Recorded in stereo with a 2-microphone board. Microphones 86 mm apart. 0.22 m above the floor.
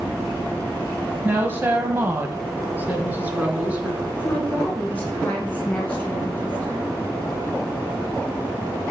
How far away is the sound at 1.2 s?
About 1.1 m.